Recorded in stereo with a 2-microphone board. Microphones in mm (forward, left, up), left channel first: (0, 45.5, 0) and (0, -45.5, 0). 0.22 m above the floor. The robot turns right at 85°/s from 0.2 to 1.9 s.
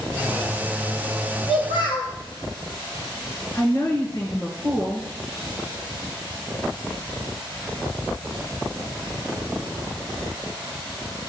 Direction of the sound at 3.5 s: 50° left (ahead or behind).